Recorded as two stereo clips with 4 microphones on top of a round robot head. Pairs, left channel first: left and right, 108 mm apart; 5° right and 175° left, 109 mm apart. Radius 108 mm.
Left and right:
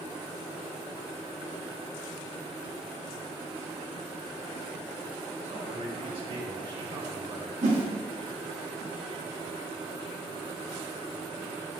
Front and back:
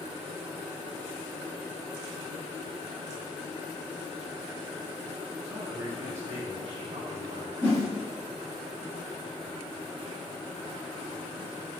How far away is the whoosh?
About 2 m.